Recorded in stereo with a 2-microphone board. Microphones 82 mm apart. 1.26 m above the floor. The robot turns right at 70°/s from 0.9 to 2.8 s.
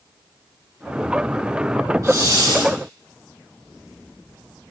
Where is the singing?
No singing in this recording.